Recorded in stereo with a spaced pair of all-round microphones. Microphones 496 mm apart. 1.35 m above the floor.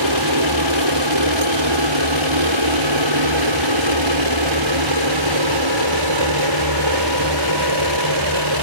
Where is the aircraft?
60° right (ahead or behind); by 8.6 s 55° right (ahead or behind).